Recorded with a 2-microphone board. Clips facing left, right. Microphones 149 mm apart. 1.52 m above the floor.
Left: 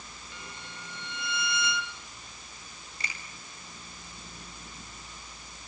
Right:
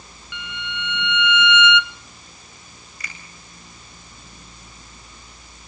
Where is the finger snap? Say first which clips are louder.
Right 1 dB; 30° left (ahead or behind), 9 m.